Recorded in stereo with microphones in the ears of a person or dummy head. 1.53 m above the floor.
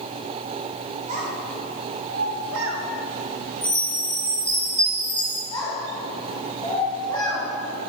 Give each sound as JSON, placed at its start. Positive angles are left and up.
{"t": 1.1, "sound": "a child speaking", "side_deg": -35, "distance_m": 1.8}
{"t": 3.6, "sound": "a chime", "side_deg": 5, "distance_m": 0.8}
{"t": 5.5, "sound": "a child speaking", "side_deg": 15, "distance_m": 2.0}